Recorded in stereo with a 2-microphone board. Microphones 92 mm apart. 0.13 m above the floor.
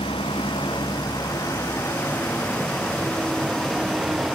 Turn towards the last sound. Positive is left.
turn(degrees=0)  # may be behind; listen again after turning